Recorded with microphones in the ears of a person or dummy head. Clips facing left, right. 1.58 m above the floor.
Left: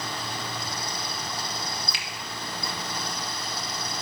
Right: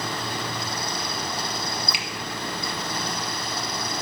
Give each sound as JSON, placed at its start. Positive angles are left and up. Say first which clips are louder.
{"t": 1.9, "sound": "a finger snap", "louder": "right 5 dB", "side_deg": -10, "distance_m": 0.9}